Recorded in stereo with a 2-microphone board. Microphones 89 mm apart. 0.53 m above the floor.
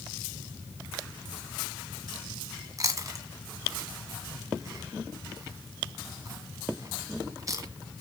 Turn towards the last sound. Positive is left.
turn(degrees=-40)  # may be behind; listen again after turning